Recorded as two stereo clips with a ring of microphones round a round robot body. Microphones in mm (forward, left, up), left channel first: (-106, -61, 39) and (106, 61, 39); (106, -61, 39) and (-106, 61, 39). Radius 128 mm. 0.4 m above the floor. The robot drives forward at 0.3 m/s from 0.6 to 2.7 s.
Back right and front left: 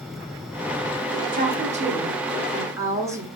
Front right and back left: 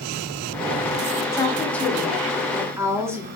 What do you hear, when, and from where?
1.3 s a woman speaking: 40° left, 1.0 m; by 3.3 s 90° left, 0.9 m